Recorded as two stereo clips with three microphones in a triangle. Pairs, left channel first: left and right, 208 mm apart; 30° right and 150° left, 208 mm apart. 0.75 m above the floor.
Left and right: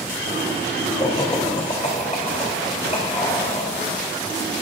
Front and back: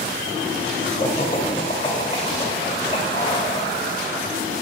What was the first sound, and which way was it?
Laughter, 25° left.